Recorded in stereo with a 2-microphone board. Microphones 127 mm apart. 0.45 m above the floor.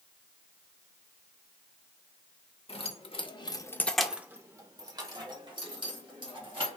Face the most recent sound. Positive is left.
turn(degrees=-40)  # may be behind; listen again after turning